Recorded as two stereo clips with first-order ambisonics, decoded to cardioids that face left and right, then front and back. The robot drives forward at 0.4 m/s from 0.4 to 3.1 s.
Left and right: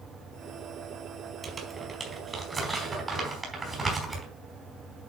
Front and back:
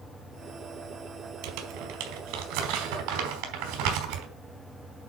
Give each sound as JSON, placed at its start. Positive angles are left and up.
{"t": 1.4, "sound": "crumpling", "azimuth_deg": -160, "distance_m": 1.9}